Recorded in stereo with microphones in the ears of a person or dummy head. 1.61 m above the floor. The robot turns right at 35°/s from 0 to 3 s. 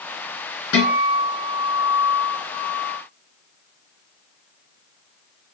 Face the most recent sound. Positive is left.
turn(degrees=155)